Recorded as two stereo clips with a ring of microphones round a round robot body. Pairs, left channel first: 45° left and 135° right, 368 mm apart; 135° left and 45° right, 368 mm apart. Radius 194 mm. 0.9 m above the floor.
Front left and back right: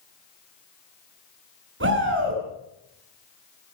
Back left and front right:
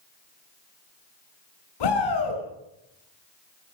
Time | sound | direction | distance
1.8 | a shout | 165° left | 8.5 m